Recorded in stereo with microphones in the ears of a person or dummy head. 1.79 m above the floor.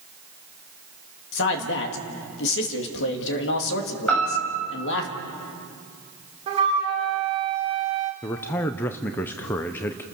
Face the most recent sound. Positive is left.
turn(degrees=15)  # may be behind; listen again after turning